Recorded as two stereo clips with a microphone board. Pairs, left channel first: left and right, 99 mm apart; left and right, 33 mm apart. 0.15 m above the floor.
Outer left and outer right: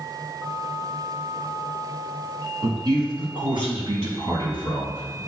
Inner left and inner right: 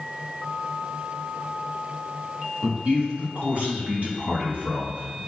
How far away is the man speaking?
About 1.4 m.